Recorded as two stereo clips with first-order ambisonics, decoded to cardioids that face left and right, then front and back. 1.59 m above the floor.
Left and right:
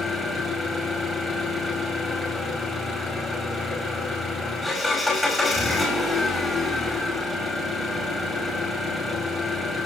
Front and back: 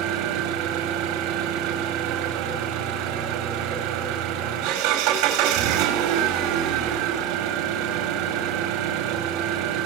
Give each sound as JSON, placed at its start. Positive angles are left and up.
{"t": 0.0, "sound": "an engine running", "azimuth_deg": 170, "distance_m": 5.0}